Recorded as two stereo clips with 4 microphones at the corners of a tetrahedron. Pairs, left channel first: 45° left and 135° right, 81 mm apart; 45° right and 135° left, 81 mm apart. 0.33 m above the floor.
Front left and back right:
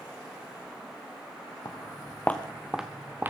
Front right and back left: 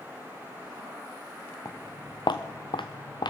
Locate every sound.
1.6 s footsteps: straight ahead, 1.5 m; by 3.3 s 70° right, 1.6 m